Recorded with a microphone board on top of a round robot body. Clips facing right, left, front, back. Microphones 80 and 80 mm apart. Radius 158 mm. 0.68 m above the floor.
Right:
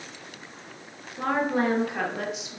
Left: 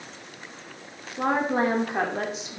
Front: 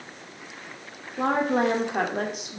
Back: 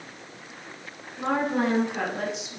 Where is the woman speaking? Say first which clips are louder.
Left 1 dB, front 2 dB; 20° left, 2.5 m; by 2.6 s 40° left, 2.5 m.